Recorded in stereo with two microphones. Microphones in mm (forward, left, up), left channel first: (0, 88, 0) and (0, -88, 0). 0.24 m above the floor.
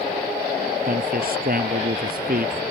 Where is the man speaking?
60° right (ahead or behind).